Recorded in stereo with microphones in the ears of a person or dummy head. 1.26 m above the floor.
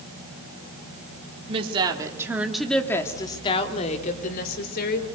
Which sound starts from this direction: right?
A woman speaking, at 1.5 s.